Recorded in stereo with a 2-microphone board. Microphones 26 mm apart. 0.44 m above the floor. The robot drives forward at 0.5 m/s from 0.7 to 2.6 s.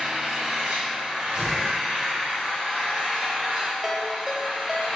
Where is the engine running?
25° right (ahead or behind), 1.4 m; by 5.0 s 15° right (ahead or behind), 2 m.